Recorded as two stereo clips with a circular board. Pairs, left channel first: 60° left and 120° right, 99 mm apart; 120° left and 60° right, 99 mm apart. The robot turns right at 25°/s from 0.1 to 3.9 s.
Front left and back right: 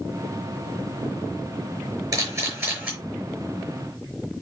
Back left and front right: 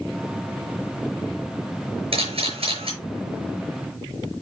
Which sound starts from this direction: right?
A camera shutter, at 2.1 s.